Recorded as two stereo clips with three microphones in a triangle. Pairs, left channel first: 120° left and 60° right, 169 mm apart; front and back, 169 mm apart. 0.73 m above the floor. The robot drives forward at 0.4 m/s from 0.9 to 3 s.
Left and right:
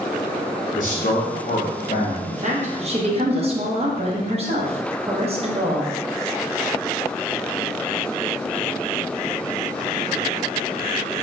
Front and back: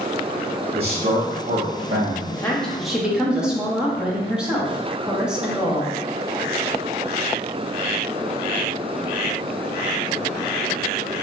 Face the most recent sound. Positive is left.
turn(degrees=-95)